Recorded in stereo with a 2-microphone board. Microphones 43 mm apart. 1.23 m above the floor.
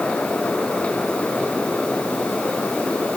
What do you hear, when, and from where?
Only background noise.